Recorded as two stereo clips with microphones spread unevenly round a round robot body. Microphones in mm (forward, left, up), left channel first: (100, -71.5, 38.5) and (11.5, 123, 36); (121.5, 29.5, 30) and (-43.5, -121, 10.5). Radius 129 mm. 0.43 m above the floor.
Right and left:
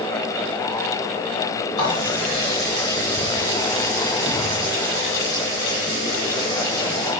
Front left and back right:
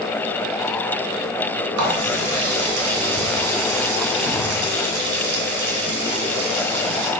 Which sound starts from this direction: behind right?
A running tap, at 1.8 s.